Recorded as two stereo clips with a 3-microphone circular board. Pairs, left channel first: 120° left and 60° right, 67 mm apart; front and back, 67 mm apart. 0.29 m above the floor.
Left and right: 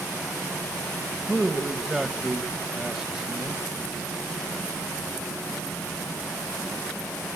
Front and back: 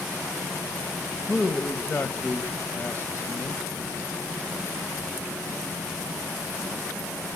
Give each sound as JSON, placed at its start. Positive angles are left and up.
{"t": 1.3, "sound": "a man speaking", "azimuth_deg": 25, "distance_m": 1.5}